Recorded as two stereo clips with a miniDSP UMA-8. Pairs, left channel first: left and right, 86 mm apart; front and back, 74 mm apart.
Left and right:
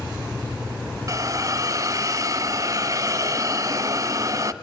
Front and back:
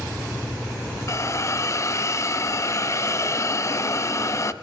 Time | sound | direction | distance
1.1 | a hiss | 45° right | 1.2 m